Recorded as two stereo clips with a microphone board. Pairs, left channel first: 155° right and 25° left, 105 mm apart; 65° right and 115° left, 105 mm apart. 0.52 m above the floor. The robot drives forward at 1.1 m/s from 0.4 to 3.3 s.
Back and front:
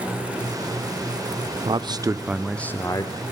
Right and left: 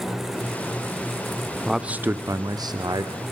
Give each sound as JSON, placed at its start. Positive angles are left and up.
{"t": 1.6, "sound": "a man speaking", "azimuth_deg": 25, "distance_m": 1.0}